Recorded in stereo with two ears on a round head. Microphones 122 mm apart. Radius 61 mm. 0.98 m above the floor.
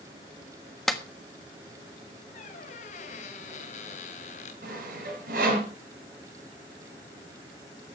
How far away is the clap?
About 1.3 m.